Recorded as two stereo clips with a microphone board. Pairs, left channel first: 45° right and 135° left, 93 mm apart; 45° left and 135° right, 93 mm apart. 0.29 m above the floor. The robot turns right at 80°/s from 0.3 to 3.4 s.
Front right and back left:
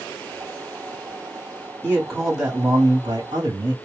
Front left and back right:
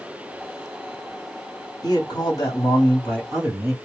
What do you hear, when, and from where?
1.8 s a man speaking: 15° left, 1.9 m; by 3.8 s 140° left, 1.9 m